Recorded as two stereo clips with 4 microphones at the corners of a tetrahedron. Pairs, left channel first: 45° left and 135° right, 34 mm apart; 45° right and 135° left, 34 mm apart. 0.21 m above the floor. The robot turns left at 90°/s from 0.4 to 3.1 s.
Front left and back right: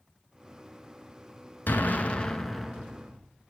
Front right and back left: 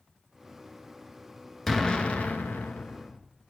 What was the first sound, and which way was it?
An explosion, 35° left.